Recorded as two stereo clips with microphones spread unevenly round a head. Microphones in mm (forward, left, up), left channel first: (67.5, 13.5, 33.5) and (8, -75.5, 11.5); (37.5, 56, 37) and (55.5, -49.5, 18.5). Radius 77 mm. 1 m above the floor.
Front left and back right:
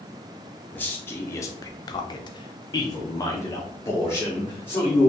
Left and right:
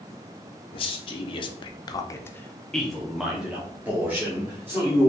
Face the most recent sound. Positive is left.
turn(degrees=-15)